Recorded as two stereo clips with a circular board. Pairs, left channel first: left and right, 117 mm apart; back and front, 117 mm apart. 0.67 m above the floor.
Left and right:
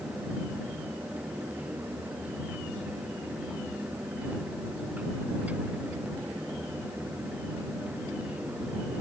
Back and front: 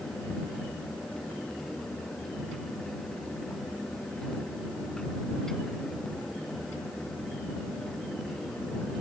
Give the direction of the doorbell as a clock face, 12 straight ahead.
No doorbell in this recording.